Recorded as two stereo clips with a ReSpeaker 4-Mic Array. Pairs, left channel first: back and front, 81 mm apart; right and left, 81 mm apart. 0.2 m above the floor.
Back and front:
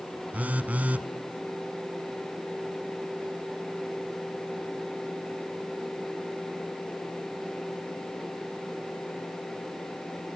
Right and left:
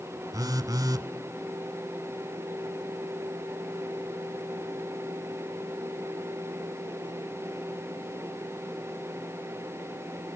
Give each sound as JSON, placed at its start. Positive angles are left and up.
{"t": 0.3, "sound": "a phone buzzing", "azimuth_deg": 65, "distance_m": 0.7}